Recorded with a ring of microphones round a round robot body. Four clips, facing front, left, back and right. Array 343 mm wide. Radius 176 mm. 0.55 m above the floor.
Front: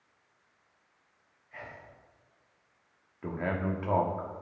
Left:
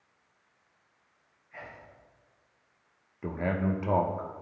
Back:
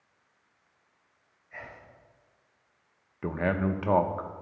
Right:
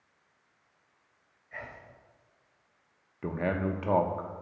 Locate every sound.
1.5 s whispering: 105° right, 3 m
3.2 s a man speaking: 165° right, 0.7 m